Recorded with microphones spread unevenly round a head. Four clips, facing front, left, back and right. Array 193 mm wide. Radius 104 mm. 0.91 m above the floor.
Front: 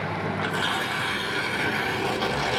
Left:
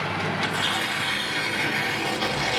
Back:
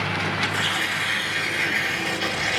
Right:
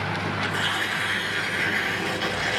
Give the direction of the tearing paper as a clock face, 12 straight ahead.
12 o'clock.